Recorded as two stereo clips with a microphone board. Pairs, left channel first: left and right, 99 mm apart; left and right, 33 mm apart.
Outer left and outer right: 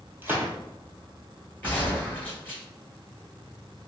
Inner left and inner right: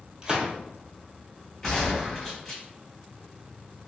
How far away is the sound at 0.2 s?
About 1.1 m.